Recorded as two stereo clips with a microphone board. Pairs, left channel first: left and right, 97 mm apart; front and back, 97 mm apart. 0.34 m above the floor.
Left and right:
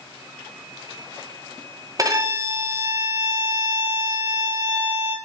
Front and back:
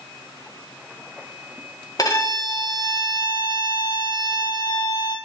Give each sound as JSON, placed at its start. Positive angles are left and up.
{"t": 2.0, "sound": "a violin", "azimuth_deg": -40, "distance_m": 1.7}